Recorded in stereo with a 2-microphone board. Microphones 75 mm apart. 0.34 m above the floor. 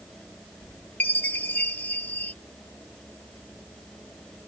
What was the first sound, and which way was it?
A chime, 25° left (ahead or behind).